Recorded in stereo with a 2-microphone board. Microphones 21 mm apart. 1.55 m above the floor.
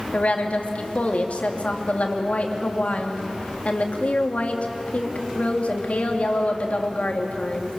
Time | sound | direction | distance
0.1 | a woman speaking | 70° left (ahead or behind) | 3 m